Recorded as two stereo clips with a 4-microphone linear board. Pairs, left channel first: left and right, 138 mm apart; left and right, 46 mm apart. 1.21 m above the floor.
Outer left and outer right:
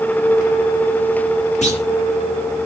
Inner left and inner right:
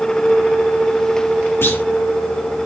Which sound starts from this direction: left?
A clunk, at 1.6 s.